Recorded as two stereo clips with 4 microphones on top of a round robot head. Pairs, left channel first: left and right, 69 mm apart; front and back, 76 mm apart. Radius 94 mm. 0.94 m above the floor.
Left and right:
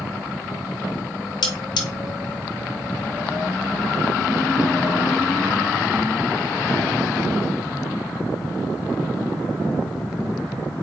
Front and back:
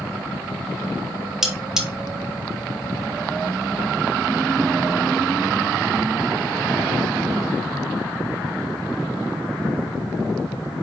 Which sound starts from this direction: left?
Cutlery clinking, at 1.4 s.